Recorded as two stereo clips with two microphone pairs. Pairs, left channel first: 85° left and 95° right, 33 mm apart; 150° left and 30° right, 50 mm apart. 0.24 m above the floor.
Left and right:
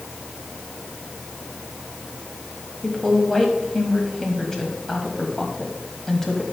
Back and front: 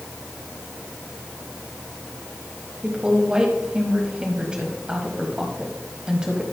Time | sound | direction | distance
2.8 | a woman speaking | 25° left | 1.3 m